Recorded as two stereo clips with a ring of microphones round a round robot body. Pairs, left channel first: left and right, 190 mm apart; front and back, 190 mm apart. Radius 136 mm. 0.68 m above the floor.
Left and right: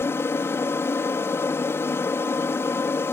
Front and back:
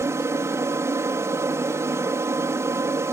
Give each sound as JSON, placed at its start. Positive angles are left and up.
{"t": 0.0, "sound": "an aircraft", "azimuth_deg": 140}